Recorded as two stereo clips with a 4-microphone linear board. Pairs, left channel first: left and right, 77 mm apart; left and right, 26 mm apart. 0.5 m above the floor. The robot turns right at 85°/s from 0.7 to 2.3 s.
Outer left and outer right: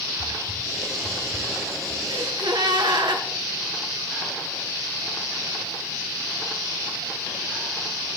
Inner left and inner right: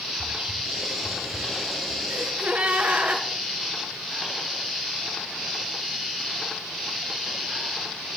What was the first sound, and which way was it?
Whispering, 75° right (ahead or behind).